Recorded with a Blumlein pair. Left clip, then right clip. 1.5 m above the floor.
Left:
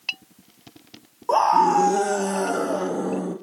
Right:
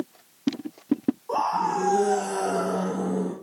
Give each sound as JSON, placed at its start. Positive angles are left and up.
{"t": 1.3, "sound": "a scream", "azimuth_deg": 45, "distance_m": 1.3}